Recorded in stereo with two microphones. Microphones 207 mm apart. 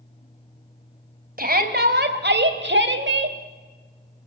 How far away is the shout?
About 2.5 m.